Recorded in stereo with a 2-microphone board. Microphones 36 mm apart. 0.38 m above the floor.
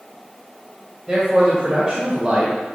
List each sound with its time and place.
1.1 s a man speaking: 25° right (ahead or behind), 2.5 m